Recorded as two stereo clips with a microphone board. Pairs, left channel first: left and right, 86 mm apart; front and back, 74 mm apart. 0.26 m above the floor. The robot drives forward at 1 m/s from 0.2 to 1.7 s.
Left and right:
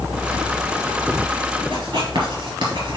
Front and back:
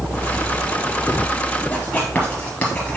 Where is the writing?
70° right, 3 m.